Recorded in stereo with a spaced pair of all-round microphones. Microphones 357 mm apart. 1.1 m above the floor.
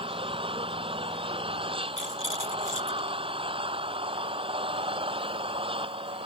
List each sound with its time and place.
0.0 s an engine running: 15° right (ahead or behind)
2.0 s a rattle: 60° left (ahead or behind)